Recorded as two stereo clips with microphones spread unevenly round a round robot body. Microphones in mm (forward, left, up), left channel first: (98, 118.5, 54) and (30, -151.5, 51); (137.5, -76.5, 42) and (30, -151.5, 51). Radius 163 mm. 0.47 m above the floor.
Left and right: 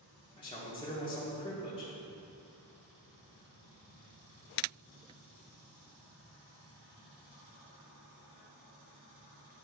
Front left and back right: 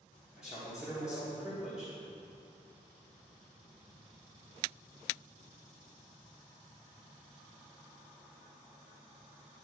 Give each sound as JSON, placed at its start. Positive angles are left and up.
{"t": 0.4, "sound": "a man speaking", "azimuth_deg": 130, "distance_m": 1.4}